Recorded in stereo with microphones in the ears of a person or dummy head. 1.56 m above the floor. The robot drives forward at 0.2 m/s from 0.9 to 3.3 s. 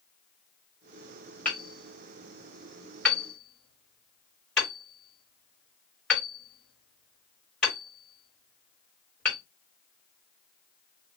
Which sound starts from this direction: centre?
Hammering, at 1.4 s.